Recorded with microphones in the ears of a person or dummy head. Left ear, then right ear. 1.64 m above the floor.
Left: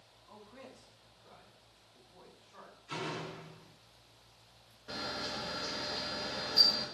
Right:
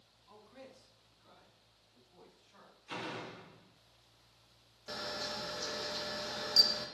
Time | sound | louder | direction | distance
0.3 | a man speaking | left 2 dB | 15° right (ahead or behind) | 3 m
2.9 | a door slam | left 2 dB | 15° right (ahead or behind) | 0.8 m
4.9 | a camera shutter | left 1 dB | 85° right | 2.5 m